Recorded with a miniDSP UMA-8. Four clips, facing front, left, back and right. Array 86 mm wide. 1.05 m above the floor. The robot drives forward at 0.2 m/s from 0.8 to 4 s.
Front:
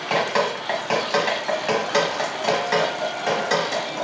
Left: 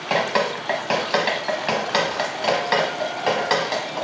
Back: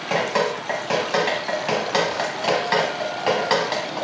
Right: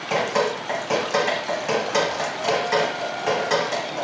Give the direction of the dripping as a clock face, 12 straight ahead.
9 o'clock.